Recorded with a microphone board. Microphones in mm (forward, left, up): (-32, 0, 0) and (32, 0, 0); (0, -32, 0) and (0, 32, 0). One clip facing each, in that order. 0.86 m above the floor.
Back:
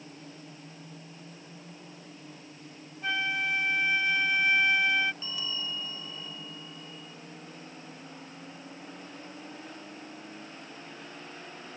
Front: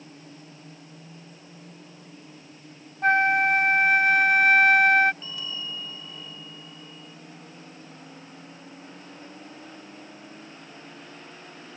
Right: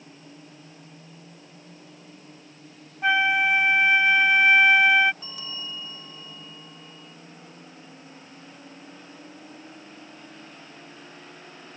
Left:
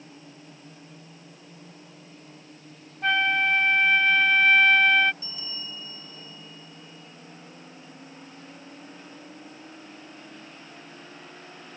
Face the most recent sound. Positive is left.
turn(degrees=-95)